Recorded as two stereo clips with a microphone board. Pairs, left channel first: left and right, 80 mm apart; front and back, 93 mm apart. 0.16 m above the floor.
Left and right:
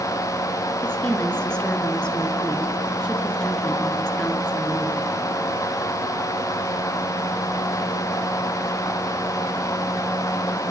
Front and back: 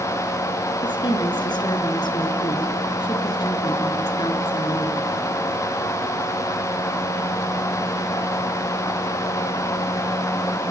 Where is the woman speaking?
15° left, 2.5 m.